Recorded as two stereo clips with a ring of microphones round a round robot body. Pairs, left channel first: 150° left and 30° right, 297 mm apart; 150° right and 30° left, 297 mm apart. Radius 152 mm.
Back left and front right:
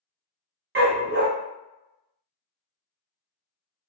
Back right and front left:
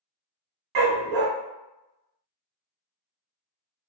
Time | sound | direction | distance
0.8 | a dog barking | 25° left | 0.7 m